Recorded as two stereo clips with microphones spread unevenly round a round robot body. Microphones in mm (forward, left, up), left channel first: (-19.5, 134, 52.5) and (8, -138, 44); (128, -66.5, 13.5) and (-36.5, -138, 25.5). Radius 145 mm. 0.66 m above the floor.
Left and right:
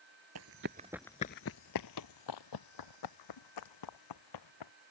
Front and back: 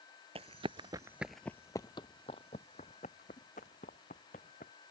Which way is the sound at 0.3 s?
110° right.